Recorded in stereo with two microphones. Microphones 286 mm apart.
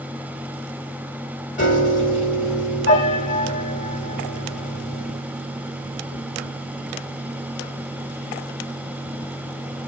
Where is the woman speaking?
No woman speaking in this recording.